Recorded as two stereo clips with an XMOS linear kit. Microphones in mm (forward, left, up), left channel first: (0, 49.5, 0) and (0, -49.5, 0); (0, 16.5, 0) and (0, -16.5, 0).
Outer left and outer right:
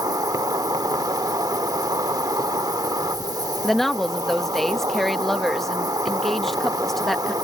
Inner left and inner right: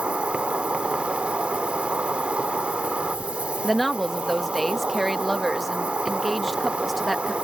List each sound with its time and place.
0.0 s an insect: 40° right (ahead or behind)
3.6 s a woman speaking: 5° left (ahead or behind)